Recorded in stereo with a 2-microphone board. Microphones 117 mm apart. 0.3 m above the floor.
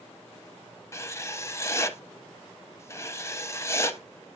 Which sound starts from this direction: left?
Writing, at 0.9 s.